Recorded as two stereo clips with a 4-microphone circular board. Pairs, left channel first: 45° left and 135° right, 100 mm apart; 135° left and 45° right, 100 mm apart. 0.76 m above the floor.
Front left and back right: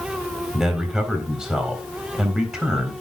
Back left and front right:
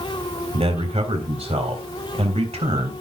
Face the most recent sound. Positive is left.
turn(degrees=-50)